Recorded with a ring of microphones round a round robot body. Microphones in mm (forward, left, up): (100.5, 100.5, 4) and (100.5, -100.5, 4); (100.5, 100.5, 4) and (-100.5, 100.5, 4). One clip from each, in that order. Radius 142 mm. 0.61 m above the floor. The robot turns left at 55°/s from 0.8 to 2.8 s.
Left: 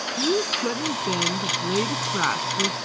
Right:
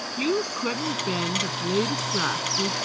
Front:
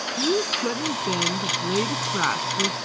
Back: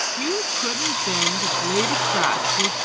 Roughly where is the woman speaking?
Behind right.